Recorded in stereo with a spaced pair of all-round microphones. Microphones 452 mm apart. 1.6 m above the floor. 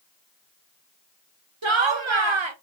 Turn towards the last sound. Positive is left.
turn(degrees=-85)